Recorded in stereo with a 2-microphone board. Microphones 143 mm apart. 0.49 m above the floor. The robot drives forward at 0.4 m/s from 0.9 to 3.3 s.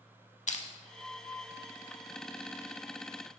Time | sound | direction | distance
0.5 | crushing | 60° left (ahead or behind) | 0.6 m